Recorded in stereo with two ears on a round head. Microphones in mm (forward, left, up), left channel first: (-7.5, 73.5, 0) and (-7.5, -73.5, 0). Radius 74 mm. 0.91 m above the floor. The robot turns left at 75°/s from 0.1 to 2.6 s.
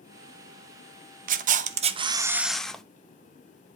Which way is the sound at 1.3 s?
85° right.